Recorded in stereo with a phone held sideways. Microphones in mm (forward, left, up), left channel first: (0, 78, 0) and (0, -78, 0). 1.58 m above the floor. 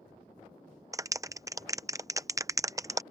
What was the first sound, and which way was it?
A clap, 20° right (ahead or behind).